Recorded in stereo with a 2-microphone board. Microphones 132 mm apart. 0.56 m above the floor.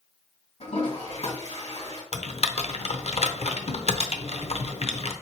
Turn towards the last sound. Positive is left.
turn(degrees=60)  # may be behind; listen again after turning